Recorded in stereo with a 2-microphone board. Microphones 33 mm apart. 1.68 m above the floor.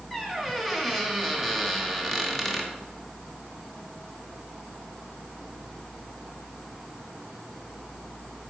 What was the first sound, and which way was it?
A squeak, centre (ahead or behind).